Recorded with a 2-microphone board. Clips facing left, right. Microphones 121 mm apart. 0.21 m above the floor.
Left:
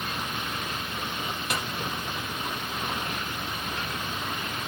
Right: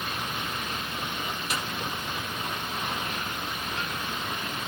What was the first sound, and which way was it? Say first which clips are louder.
A snare drum: left 2 dB; 60° left (ahead or behind).